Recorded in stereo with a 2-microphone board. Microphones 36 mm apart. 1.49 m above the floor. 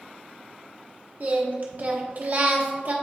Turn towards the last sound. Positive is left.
turn(degrees=-50)  # may be behind; listen again after turning